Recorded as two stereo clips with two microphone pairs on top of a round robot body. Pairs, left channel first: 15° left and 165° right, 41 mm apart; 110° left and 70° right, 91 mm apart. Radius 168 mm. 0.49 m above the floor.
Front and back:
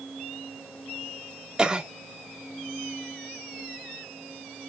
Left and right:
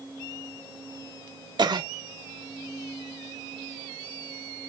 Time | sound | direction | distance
1.6 | a cough | 90° right | 2.5 m